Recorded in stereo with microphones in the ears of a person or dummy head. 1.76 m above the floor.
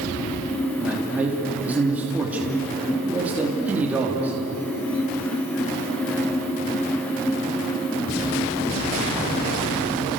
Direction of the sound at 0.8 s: 10° right (ahead or behind).